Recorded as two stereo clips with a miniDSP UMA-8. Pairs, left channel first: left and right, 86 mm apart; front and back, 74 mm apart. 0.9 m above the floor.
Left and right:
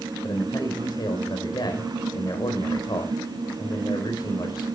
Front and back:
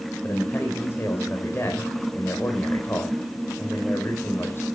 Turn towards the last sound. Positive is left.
turn(degrees=60)